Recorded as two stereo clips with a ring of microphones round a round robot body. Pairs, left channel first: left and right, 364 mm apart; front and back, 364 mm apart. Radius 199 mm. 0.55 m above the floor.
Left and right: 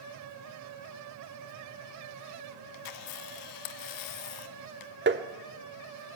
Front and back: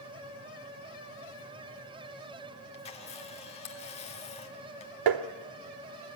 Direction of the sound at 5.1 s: 150° right.